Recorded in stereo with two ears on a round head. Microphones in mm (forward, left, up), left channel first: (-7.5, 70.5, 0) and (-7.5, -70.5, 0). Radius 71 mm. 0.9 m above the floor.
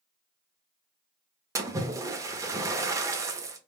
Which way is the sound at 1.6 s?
20° right (ahead or behind).